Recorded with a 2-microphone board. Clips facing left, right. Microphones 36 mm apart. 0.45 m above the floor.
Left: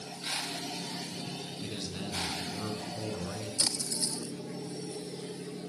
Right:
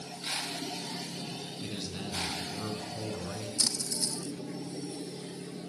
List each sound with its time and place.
1.6 s a man speaking: 10° right (ahead or behind), 6.5 m
3.6 s a splash: 30° left (ahead or behind), 1.4 m